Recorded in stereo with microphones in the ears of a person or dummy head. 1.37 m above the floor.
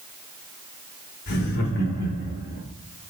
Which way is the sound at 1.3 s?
50° left (ahead or behind).